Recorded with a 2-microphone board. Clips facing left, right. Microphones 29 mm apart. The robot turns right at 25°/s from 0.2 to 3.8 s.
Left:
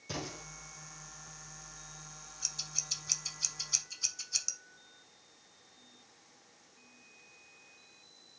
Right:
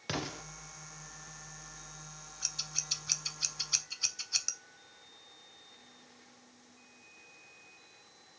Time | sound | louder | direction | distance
0.1 | an explosion | right 4 dB | 65° right (ahead or behind) | 0.8 m
2.4 | scissors | right 2 dB | 15° right (ahead or behind) | 0.5 m